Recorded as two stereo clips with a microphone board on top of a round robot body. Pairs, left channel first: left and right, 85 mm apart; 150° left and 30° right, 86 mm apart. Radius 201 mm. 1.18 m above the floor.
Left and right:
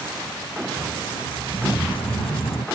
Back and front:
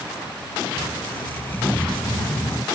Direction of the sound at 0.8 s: 80° left.